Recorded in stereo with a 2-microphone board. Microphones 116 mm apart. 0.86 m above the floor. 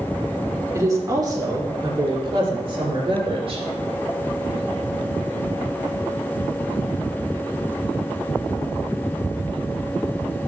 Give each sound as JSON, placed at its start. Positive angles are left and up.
{"t": 0.7, "sound": "a woman speaking", "side_deg": -30, "distance_m": 2.5}